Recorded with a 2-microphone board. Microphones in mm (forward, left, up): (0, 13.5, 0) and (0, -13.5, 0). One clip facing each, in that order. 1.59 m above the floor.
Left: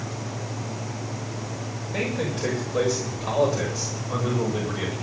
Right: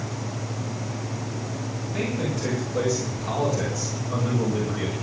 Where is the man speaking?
45° left (ahead or behind), 7.5 m; by 4.9 s 30° left (ahead or behind), 7 m.